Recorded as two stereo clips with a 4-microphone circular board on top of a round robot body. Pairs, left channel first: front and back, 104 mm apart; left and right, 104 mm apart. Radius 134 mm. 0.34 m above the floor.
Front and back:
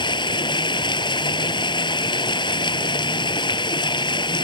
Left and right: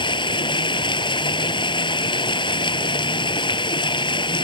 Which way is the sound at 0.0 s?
45° left.